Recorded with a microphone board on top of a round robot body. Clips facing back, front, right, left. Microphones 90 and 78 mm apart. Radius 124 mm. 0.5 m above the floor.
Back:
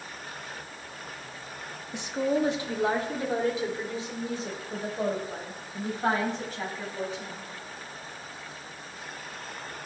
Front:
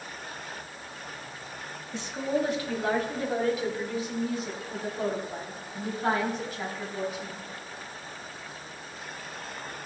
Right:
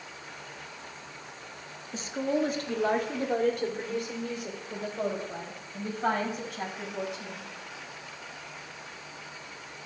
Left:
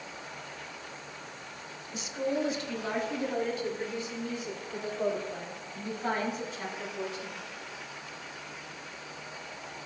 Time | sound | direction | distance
1.9 | a woman speaking | 115° right | 1.4 m